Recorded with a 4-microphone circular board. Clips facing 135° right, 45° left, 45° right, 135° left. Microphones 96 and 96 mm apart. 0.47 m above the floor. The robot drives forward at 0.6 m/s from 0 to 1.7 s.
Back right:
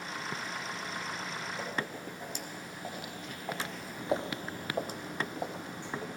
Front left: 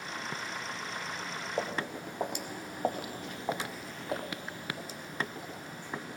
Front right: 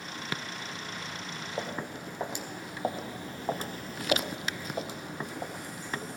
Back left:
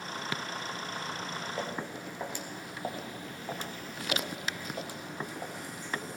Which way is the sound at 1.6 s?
30° left.